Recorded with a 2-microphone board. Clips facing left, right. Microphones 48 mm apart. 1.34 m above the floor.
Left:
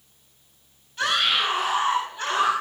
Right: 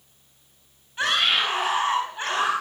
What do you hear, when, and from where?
1.0 s a scream: 25° right (ahead or behind), 8 m